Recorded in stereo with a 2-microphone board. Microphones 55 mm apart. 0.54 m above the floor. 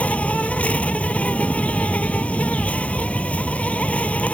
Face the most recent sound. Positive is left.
turn(degrees=25)  # may be behind; listen again after turning